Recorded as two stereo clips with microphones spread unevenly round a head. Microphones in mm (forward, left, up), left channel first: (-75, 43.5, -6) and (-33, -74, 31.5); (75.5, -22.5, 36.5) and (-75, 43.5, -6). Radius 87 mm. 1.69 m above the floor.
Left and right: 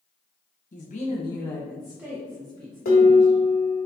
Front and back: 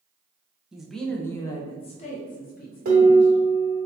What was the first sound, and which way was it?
A woman speaking, 60° left.